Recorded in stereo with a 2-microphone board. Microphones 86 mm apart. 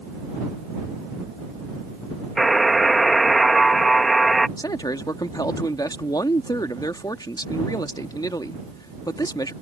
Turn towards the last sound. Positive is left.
turn(degrees=50)  # may be behind; listen again after turning